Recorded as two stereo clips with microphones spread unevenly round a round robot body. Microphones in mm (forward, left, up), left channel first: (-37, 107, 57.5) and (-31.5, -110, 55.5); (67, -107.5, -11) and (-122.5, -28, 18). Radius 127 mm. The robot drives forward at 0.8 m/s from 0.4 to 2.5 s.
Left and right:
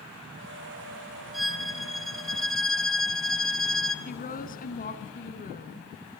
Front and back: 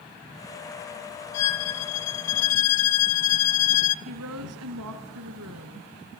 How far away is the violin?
About 2 m.